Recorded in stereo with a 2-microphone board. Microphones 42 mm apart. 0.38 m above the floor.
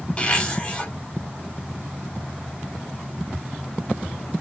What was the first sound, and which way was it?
A zipper, 25° left (ahead or behind).